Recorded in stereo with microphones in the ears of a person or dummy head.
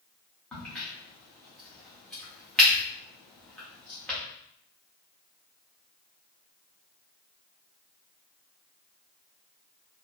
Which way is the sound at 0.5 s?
5° left (ahead or behind).